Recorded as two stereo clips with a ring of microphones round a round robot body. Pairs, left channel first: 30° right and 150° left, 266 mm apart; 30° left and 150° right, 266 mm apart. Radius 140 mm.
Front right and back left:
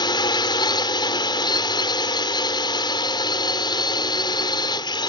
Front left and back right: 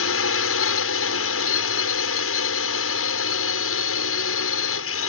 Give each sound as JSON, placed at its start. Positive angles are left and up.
{"t": 0.0, "sound": "a drone", "azimuth_deg": 40}